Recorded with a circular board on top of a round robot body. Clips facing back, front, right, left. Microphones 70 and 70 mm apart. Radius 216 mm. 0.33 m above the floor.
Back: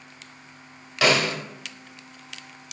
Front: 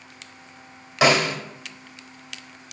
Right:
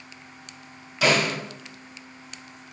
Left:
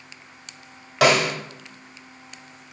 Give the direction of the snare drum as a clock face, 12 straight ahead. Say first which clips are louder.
Front 2 dB, left 4 dB; 10 o'clock.